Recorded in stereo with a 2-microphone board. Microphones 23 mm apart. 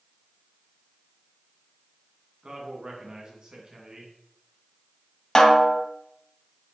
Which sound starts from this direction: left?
A snare drum, at 5.3 s.